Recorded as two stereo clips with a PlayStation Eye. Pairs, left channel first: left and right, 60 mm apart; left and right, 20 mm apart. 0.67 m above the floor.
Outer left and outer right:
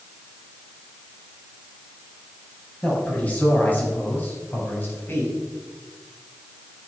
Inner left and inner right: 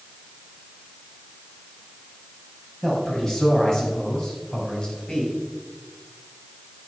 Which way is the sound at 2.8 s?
25° left (ahead or behind).